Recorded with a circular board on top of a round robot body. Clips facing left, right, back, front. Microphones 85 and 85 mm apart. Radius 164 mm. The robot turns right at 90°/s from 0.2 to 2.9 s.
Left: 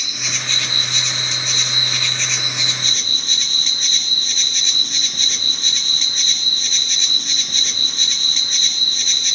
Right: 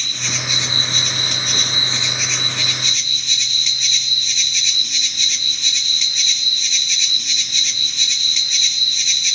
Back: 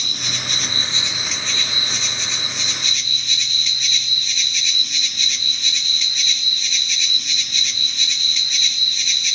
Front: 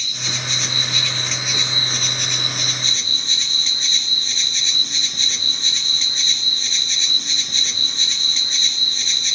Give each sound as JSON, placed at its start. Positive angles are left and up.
{"t": 0.0, "sound": "an insect", "azimuth_deg": 170, "distance_m": 2.0}